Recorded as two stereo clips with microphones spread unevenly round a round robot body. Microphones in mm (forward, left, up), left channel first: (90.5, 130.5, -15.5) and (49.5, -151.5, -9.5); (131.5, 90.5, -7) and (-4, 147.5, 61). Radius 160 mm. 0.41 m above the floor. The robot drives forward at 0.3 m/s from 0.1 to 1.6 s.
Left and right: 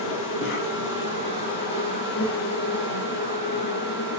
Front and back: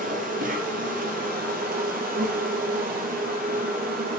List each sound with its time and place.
0.0 s an insect: 135° left, 2.5 m; by 4.2 s 140° left, 3 m